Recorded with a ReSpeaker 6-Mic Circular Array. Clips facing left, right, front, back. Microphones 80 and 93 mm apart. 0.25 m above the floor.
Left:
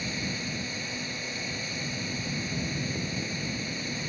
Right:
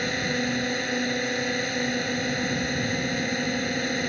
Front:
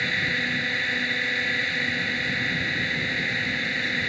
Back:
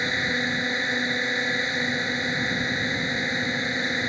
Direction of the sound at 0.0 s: 115° right.